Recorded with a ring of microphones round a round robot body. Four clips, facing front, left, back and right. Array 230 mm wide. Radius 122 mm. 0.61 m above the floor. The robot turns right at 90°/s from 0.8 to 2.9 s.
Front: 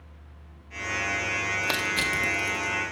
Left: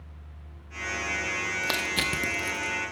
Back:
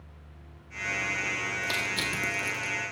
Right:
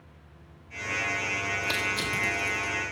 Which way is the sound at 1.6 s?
35° left.